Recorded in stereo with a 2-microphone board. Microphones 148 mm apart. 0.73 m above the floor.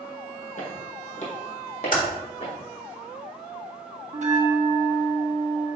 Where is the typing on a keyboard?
60° left (ahead or behind), 1.6 m.